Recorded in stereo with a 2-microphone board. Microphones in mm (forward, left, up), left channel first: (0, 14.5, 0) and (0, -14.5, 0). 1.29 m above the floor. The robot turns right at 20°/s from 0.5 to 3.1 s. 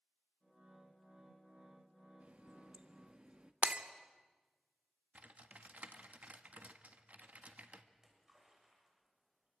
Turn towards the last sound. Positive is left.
turn(degrees=-20)  # may be behind; listen again after turning